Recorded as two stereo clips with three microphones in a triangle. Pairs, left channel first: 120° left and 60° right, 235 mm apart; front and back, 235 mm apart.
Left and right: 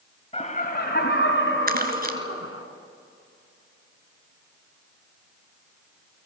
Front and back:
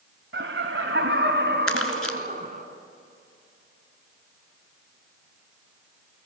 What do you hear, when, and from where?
0.3 s laughter: straight behind, 1.7 m; by 2.6 s 125° left, 3 m
1.7 s crumpling: 10° right, 1.8 m